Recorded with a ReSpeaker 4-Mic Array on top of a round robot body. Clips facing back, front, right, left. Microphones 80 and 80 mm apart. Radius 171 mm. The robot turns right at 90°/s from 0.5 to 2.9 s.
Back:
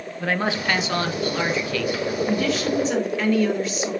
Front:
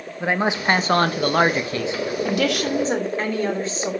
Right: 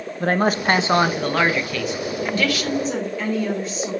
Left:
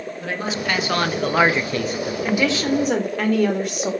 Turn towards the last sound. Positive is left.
turn(degrees=60)